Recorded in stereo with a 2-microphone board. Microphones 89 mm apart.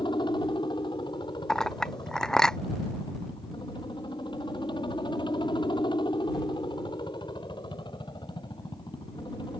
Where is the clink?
5° left (ahead or behind).